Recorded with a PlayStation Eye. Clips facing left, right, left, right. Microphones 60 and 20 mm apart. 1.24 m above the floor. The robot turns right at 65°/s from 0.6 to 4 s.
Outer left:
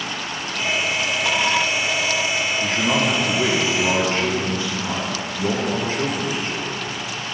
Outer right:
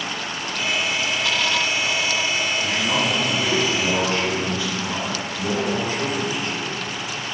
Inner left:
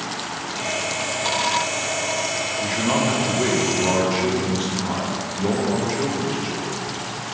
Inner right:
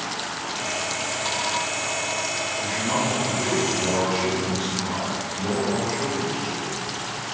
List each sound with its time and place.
2.6 s a man speaking: 60° left, 0.9 m; by 6.7 s 150° left, 0.9 m